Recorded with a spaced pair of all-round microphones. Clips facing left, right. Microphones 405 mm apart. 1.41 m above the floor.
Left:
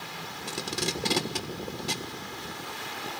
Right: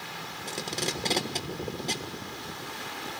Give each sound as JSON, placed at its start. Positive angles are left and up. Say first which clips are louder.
{"t": 0.5, "sound": "tape being pulled", "louder": "left 1 dB", "side_deg": 20, "distance_m": 1.5}